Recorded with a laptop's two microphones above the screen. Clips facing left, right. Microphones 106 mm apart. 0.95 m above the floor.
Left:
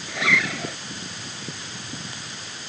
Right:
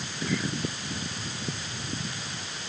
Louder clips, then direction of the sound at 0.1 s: Left 6 dB; 90° left.